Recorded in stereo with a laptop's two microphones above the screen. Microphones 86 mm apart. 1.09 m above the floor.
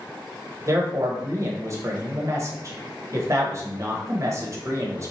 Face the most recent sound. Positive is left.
turn(degrees=-35)  # may be behind; listen again after turning